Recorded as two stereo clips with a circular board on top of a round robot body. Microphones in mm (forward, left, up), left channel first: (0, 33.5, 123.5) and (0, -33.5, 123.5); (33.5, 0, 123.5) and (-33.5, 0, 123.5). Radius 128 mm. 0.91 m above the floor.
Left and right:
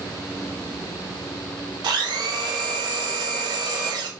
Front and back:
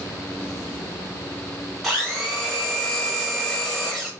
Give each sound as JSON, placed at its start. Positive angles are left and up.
{"t": 1.8, "sound": "a blender", "azimuth_deg": -95, "distance_m": 0.6}